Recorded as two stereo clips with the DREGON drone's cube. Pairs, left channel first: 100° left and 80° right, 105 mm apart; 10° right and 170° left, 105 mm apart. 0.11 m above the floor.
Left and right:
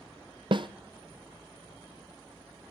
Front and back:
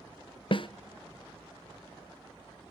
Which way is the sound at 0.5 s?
45° right.